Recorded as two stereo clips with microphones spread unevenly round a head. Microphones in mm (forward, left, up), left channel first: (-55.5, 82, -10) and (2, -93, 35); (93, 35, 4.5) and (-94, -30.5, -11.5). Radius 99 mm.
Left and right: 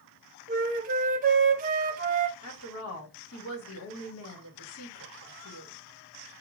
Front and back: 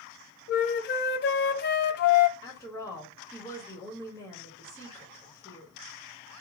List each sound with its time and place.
0.5 s a flute: 20° right, 0.6 m
2.4 s a woman speaking: 95° left, 1.8 m